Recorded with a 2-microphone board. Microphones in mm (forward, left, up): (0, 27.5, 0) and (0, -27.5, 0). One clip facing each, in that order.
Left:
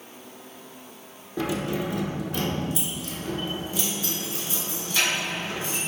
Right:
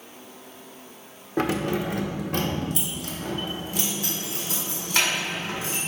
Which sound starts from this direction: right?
Keys jangling, at 1.4 s.